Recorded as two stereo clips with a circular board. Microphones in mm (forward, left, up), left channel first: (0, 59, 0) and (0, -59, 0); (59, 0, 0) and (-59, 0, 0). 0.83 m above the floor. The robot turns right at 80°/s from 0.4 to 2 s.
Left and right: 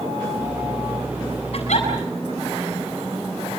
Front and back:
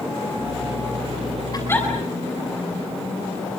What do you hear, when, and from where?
1.5 s a giggle: 55° left, 7.5 m; by 1.9 s 85° left, 7.5 m